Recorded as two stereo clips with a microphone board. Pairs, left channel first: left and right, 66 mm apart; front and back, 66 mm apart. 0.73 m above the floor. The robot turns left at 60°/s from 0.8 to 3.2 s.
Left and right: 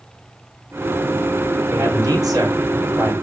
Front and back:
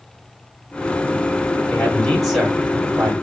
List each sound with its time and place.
1.7 s a man speaking: 60° right, 2 m; by 3.1 s 145° right, 2 m